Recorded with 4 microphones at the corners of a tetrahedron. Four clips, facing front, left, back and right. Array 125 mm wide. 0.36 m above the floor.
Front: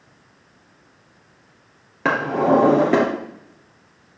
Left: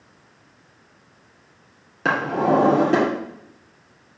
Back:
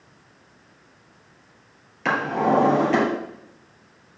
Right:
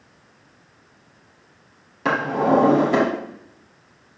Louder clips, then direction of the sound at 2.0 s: Right 1 dB, front 3 dB; 25° left.